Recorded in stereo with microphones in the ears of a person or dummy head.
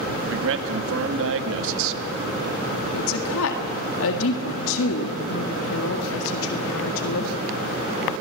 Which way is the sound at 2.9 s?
85° left.